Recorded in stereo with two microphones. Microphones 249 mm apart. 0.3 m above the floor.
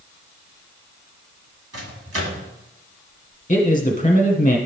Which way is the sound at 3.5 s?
30° left (ahead or behind).